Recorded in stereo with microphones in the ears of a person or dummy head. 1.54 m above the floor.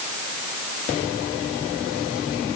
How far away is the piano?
I don't hear a piano.